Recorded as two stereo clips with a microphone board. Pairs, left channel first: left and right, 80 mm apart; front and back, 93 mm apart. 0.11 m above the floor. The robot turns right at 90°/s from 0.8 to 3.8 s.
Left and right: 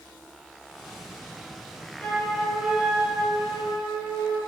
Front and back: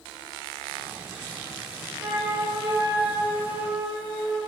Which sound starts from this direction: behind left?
A flute, at 2.0 s.